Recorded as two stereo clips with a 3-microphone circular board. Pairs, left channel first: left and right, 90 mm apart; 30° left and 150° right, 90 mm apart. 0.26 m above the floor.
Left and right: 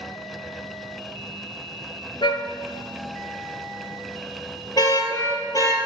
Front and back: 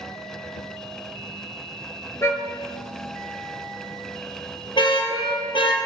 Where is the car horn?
90° left, 2.5 m; by 5.8 s 40° left, 3.5 m.